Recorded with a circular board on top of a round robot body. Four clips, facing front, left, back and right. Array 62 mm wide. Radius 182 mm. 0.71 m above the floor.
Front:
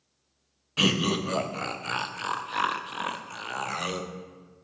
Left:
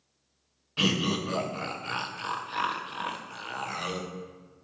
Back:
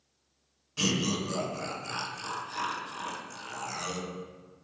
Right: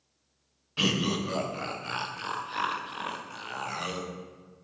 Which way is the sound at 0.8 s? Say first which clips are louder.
Left 1 dB, front 4 dB; 5° left.